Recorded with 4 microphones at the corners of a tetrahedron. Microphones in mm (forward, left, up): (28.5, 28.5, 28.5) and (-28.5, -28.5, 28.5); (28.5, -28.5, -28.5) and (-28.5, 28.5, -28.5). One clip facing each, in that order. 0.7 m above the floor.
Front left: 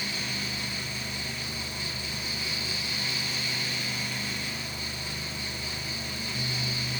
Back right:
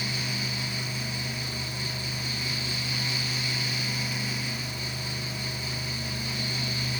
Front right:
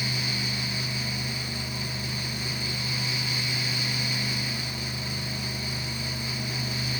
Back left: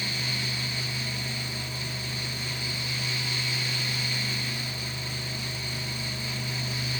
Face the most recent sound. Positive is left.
No sound to turn to.